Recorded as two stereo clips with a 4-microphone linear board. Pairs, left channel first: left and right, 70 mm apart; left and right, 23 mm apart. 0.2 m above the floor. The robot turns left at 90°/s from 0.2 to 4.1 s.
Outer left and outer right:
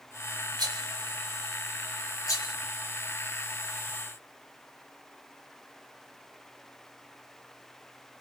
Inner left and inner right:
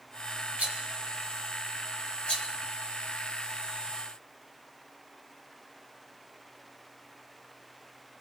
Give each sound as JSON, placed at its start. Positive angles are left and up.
{"t": 0.6, "sound": "a rattle", "side_deg": -70, "distance_m": 3.0}